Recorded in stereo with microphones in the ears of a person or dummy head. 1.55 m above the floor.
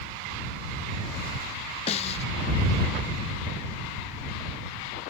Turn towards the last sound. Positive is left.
turn(degrees=35)  # may be behind; listen again after turning